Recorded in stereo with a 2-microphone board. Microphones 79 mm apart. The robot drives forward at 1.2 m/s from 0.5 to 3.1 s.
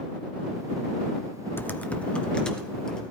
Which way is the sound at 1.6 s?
25° left (ahead or behind).